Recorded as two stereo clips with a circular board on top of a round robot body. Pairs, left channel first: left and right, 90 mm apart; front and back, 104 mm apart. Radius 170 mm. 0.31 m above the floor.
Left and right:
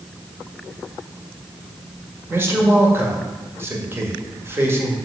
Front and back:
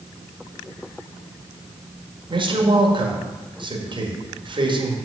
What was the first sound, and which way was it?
A man speaking, 150° right.